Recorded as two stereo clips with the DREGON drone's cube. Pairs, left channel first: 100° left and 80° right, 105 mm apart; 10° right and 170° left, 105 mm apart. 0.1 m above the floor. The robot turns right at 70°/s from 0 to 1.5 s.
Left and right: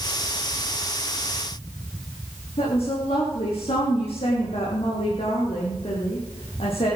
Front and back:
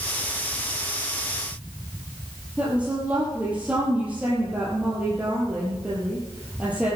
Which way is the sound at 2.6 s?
95° left.